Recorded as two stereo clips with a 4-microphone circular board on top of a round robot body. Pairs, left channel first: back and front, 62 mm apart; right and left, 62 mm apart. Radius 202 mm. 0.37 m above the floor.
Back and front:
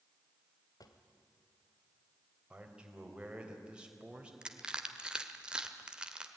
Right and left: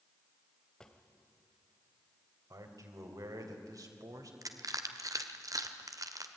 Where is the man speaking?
75° left, 3.5 m.